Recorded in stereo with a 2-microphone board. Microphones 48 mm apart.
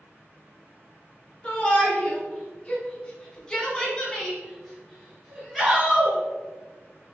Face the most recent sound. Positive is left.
turn(degrees=-10)  # may be behind; listen again after turning